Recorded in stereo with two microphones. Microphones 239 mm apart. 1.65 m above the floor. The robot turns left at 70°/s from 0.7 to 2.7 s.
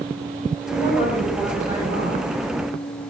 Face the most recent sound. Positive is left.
turn(degrees=-90)